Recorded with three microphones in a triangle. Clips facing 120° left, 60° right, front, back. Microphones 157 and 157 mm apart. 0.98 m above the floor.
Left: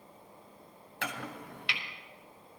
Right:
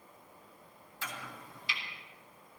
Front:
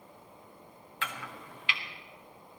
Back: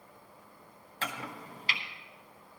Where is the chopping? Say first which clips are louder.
Left 6 dB, back 2 dB; 130° left, 1.2 m.